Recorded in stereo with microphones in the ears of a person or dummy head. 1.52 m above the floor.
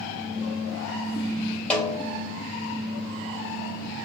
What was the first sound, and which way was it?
A snare drum, 10° left (ahead or behind).